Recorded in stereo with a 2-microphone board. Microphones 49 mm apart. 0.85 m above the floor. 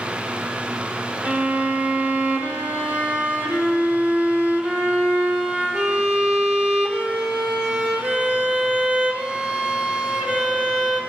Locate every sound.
1.2 s a violin: 30° right (ahead or behind), 3 m